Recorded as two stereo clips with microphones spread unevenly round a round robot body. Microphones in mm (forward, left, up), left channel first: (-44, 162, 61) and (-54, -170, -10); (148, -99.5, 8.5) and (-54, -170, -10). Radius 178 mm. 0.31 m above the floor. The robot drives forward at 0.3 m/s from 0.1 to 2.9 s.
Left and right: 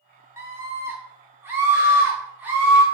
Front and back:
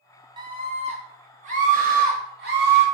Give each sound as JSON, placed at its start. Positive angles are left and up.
{"t": 0.4, "sound": "a scream", "azimuth_deg": -135, "distance_m": 0.9}